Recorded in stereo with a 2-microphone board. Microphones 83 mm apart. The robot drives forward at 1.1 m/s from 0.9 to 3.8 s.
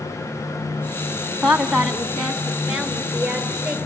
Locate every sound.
1.4 s a woman speaking: 5° right (ahead or behind), 1.0 m; by 3.8 s centre (ahead or behind), 3 m